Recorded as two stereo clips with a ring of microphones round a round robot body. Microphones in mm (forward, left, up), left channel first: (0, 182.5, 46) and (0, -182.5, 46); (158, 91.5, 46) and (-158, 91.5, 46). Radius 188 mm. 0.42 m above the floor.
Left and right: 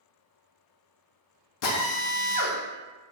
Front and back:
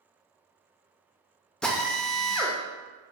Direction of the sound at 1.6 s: 85° left.